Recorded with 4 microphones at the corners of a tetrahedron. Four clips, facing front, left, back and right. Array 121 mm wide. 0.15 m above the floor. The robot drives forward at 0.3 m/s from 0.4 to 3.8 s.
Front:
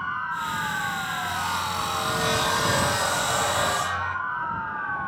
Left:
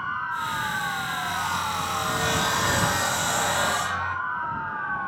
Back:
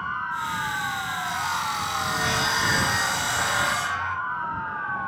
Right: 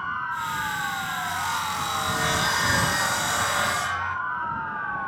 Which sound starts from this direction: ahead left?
Sawing, at 1.2 s.